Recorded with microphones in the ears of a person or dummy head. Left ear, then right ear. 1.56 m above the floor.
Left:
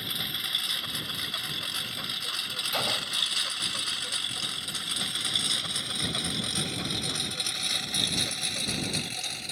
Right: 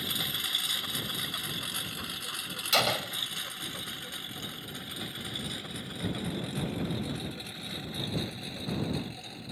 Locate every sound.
0.0 s a lawn mower: 10° left (ahead or behind); by 9.5 s 70° left (ahead or behind)
2.7 s a gunshot: 25° right (ahead or behind)